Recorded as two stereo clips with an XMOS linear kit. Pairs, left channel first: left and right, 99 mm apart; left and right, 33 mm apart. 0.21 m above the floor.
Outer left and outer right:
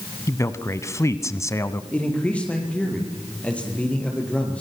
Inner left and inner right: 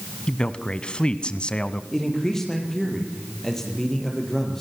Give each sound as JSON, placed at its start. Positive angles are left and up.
{"t": 0.3, "sound": "a man speaking", "side_deg": 30, "distance_m": 1.4}
{"t": 1.9, "sound": "a man speaking", "side_deg": 10, "distance_m": 5.5}